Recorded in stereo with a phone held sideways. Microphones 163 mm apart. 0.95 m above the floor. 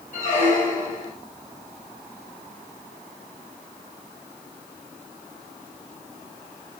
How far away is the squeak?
About 2 m.